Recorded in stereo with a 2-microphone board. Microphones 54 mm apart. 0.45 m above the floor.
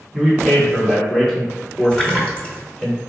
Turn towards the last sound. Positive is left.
turn(degrees=15)  # may be behind; listen again after turning